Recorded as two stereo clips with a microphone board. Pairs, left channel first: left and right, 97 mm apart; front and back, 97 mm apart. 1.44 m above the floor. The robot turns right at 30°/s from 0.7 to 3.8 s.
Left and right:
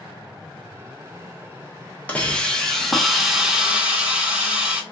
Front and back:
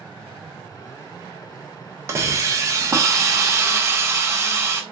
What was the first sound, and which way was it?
A hiss, 155° left.